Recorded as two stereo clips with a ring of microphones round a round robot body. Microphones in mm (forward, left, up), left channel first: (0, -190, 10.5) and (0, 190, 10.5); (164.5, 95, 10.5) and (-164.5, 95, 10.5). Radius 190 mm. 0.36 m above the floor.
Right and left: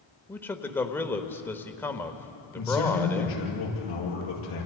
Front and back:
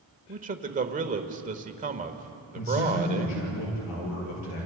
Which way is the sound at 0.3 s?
165° right.